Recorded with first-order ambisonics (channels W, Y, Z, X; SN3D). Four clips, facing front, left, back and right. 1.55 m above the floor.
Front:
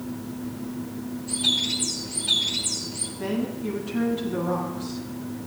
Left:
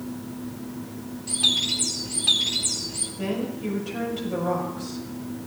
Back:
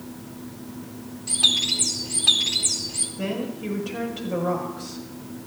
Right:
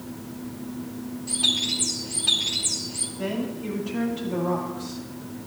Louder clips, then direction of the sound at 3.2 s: Left 1 dB, front 2 dB; 165° left.